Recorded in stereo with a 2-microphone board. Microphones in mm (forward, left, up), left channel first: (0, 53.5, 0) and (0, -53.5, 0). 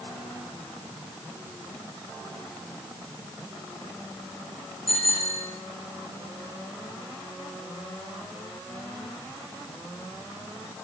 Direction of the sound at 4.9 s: 70° left (ahead or behind).